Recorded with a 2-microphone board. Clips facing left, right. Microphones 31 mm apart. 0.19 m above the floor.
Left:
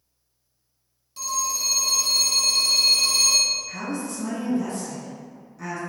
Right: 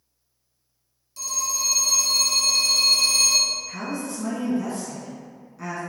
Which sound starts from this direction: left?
A phone ringing, at 1.2 s.